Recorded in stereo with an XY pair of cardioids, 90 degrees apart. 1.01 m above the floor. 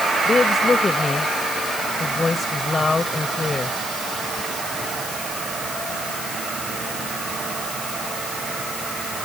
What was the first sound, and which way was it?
A woman speaking, 30° left.